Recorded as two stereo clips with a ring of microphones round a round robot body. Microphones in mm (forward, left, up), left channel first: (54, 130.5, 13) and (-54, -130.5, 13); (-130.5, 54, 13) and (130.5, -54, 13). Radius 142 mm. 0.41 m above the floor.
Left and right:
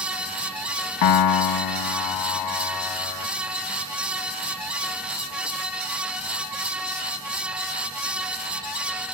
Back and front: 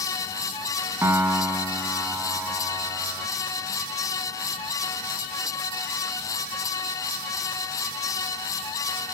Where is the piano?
60° left, 0.6 m.